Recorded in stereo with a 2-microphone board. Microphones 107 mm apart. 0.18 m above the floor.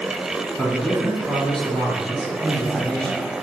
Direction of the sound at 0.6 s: 10° left (ahead or behind).